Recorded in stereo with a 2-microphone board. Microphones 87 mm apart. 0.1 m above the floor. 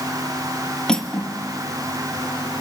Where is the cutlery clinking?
5° left (ahead or behind), 1.9 m.